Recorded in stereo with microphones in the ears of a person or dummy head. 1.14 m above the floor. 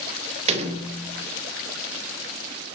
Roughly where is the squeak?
No squeak in this recording.